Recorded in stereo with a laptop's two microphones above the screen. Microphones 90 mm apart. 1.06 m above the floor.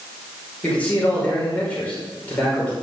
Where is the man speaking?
15° left (ahead or behind), 4.5 m.